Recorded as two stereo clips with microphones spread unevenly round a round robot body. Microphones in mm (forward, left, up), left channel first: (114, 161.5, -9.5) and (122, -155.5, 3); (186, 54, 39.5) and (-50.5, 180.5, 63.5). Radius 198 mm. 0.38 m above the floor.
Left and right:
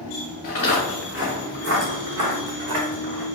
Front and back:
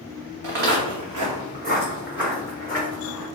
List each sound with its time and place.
0.4 s footsteps: 160° left, 1.4 m; by 3.2 s 95° right, 1.8 m